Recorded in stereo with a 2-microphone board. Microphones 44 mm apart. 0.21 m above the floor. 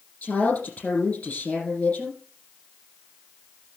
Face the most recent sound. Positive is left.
turn(degrees=35)  # may be behind; listen again after turning